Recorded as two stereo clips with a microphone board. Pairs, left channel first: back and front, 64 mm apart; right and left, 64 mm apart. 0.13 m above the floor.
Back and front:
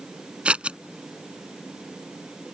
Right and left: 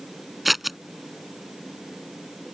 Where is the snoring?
I don't hear snoring.